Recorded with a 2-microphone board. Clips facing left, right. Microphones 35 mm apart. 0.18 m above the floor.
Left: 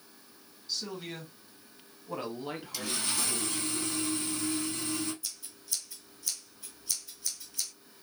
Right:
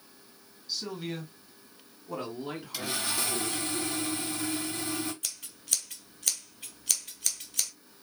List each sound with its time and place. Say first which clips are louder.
0.7 s a man speaking: right 2 dB; 5° right (ahead or behind), 1.6 m; by 3.7 s 15° left (ahead or behind), 2.0 m
2.7 s sawing: right 3 dB; 15° right (ahead or behind), 4 m
5.2 s scissors: right 3 dB; 70° right (ahead or behind), 0.8 m